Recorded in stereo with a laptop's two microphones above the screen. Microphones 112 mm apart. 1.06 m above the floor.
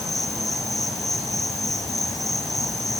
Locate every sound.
0.0 s an insect: 5° left (ahead or behind), 1.9 m